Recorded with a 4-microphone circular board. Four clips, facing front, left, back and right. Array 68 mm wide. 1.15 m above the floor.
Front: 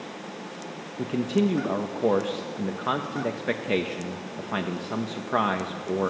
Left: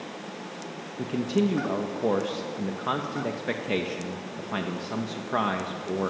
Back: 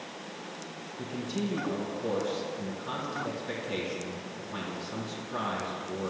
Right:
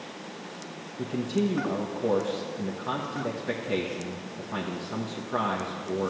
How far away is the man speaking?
About 1.3 m.